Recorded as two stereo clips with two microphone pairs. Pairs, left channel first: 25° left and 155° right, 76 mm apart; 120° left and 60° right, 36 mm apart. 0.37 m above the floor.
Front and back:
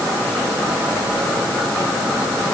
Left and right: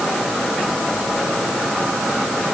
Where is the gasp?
No gasp in this recording.